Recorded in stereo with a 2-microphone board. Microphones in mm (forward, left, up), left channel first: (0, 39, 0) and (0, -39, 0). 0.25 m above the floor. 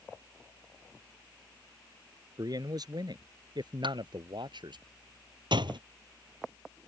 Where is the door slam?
70° right (ahead or behind).